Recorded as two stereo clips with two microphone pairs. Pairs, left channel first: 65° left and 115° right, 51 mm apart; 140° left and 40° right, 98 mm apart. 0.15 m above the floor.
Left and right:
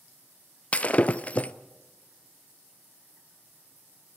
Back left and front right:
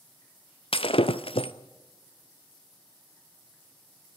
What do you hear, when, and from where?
0.7 s breaking glass: 125° left, 0.8 m